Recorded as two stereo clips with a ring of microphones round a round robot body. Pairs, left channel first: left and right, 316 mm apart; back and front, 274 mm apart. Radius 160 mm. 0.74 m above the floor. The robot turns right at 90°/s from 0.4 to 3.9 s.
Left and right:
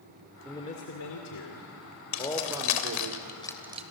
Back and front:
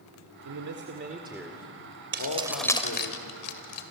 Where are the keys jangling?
50° left, 2 m; by 3.8 s 160° right, 2 m.